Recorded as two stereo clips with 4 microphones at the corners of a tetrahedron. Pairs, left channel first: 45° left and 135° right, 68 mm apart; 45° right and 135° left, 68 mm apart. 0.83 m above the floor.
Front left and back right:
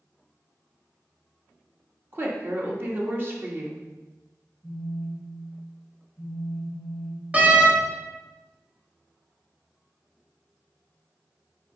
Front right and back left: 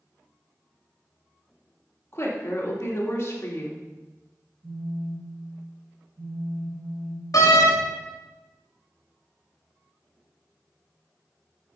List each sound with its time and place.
2.1 s a woman speaking: 85° right, 1.6 m
4.6 s a phone buzzing: 130° left, 3.5 m
7.3 s a door slam: 70° right, 1.1 m